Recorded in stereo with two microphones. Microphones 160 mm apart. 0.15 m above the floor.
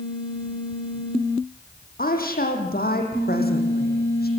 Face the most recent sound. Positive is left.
turn(degrees=75)  # may be behind; listen again after turning